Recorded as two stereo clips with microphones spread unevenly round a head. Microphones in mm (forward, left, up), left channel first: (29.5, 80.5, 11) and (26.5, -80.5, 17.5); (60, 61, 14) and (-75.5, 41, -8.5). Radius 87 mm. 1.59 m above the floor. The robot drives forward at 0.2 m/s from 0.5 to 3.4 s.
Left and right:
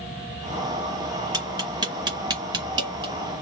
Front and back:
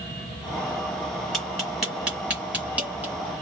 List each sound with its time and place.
1.3 s tapping: 60° right, 1.6 m; by 3.1 s 90° right, 1.5 m